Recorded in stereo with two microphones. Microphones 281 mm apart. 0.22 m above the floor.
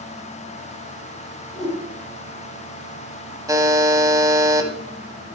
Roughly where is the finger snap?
I don't hear a finger snap.